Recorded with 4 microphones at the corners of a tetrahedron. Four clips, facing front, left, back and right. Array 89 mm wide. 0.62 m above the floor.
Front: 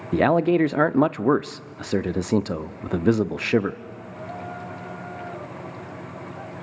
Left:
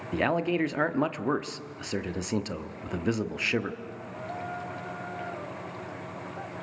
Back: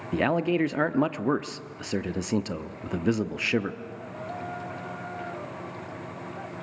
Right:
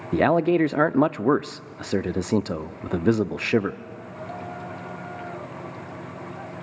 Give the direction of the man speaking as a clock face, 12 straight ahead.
2 o'clock.